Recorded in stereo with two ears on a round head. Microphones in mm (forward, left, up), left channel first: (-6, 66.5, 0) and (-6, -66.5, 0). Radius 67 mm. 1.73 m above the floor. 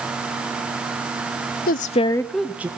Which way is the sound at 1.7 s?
65° left (ahead or behind).